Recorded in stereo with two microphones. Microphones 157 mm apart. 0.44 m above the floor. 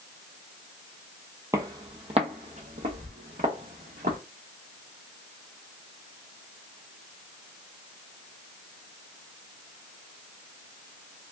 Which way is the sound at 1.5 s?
20° right (ahead or behind).